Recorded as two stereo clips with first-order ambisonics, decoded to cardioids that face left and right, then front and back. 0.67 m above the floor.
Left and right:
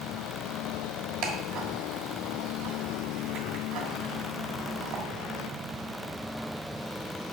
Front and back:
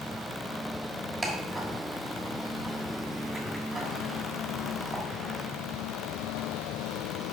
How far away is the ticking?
About 1.4 m.